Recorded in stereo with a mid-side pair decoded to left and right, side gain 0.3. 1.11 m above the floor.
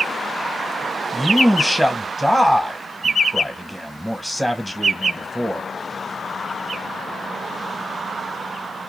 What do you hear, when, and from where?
1.1 s a man speaking: straight ahead, 0.7 m